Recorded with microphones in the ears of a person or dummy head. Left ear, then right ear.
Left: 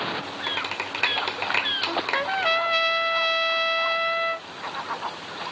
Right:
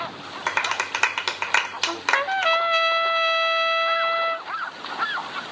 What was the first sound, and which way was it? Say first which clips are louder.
A clap: right 6 dB; 50° right (ahead or behind).